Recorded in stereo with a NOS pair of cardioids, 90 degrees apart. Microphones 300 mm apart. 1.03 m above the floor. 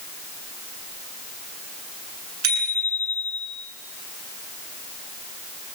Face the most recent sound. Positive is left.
turn(degrees=-70)